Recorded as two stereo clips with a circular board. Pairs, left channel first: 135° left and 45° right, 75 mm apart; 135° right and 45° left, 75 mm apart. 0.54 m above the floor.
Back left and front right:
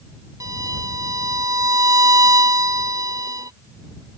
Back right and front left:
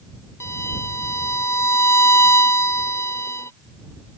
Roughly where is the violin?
Right.